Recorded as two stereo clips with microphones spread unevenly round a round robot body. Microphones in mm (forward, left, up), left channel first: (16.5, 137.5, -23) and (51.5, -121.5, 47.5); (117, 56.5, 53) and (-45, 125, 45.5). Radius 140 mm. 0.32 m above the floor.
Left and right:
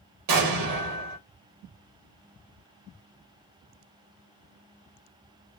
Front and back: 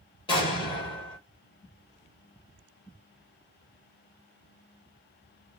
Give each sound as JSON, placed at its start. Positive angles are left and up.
{"t": 0.3, "sound": "an explosion", "azimuth_deg": -90, "distance_m": 1.3}